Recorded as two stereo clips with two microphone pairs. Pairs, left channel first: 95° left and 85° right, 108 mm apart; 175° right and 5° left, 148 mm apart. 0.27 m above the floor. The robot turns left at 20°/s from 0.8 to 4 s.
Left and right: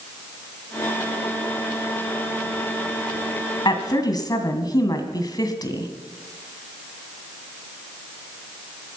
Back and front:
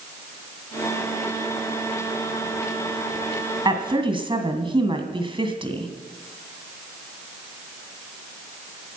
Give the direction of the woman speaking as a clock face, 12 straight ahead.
10 o'clock.